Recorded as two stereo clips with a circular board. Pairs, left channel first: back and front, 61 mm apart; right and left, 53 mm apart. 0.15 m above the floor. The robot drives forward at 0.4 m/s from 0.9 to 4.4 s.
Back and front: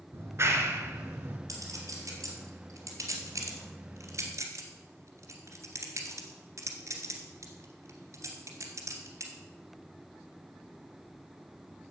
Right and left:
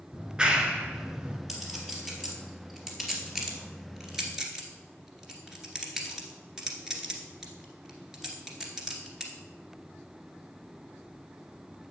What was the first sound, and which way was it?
A clap, 20° left.